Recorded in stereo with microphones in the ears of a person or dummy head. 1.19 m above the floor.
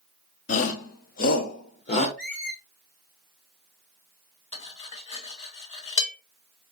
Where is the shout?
40° left (ahead or behind), 0.8 m; by 2.1 s 35° left (ahead or behind), 1.2 m.